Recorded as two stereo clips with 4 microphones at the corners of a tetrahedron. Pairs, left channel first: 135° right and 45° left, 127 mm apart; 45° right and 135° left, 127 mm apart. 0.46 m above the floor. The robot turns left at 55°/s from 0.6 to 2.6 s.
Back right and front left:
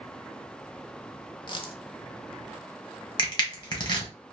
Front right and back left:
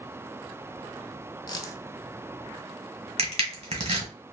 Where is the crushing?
170° left, 1.3 m.